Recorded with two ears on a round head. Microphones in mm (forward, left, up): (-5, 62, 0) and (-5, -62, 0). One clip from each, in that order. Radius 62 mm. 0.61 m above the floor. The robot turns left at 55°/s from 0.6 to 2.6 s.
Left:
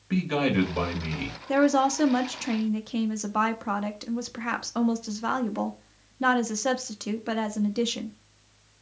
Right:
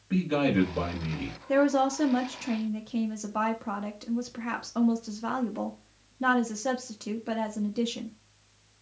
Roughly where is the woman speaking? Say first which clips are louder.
Left 2 dB; centre.